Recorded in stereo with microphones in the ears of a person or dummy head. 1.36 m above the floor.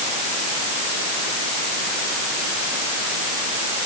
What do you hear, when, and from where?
Only background noise.